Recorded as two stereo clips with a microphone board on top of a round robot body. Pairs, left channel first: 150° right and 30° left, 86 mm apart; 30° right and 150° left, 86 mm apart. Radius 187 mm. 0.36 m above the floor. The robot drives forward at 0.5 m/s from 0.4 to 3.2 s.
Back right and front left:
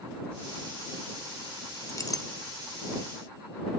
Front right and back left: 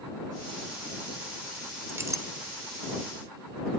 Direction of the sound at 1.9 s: 170° right.